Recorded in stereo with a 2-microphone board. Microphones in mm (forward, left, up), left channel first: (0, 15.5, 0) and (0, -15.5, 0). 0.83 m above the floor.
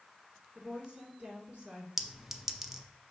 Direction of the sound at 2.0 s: 10° right (ahead or behind).